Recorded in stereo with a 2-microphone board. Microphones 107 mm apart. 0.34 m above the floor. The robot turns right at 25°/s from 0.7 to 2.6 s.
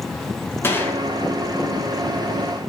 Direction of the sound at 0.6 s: 20° left (ahead or behind).